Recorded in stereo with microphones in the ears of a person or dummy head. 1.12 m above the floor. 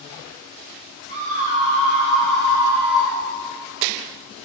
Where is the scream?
40° right (ahead or behind), 3 m; by 3.2 s 10° left (ahead or behind), 1.7 m.